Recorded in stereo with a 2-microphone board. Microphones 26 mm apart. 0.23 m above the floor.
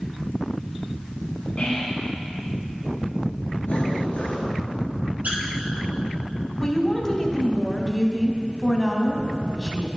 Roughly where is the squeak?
Right.